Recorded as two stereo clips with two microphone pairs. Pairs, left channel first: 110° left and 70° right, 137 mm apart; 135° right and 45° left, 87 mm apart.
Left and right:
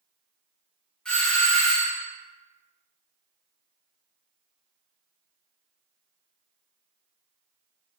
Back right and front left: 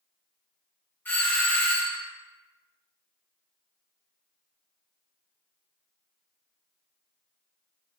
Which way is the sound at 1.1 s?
170° right.